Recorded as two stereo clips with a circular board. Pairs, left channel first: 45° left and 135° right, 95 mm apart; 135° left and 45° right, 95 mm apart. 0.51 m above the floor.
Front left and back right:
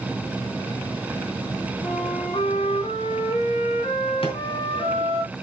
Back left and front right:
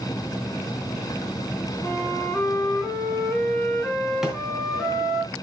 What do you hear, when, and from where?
1.8 s a flute: 50° left, 3.5 m
4.2 s a drawer: 40° left, 2.5 m